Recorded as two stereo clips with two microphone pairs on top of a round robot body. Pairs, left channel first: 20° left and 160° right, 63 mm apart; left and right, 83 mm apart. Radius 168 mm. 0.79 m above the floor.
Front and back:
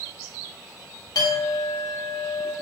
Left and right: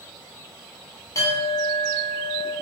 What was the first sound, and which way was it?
A clink, 40° left.